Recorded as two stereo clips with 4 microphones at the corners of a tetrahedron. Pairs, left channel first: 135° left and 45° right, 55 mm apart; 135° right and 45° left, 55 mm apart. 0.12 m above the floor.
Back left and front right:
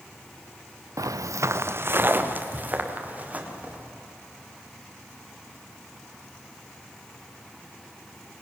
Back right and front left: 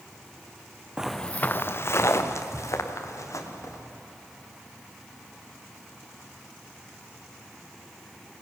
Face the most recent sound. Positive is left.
turn(degrees=-110)